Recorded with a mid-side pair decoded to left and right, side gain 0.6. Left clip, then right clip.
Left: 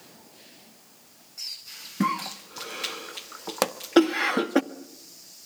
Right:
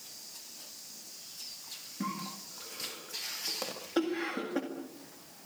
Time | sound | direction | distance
2.0 | a cough | 60° left | 1.7 m
3.6 | a pop | 65° left | 1.2 m